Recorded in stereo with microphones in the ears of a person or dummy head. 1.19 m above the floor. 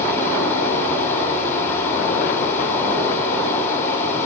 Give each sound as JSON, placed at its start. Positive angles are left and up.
{"t": 0.0, "sound": "running water", "side_deg": 10, "distance_m": 6.5}